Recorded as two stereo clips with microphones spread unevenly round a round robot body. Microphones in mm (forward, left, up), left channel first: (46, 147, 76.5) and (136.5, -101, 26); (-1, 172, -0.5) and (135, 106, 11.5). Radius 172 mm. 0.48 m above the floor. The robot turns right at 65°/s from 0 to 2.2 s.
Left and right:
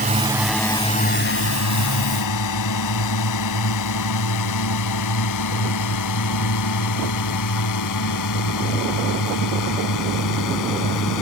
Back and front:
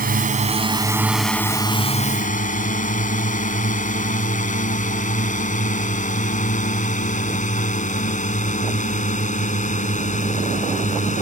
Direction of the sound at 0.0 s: 15° right.